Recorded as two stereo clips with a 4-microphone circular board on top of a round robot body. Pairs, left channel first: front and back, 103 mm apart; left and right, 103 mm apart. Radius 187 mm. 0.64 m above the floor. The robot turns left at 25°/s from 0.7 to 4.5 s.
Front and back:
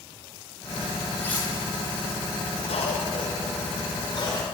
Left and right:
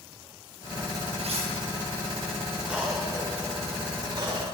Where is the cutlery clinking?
75° right, 6 m; by 1.5 s 80° right, 6 m.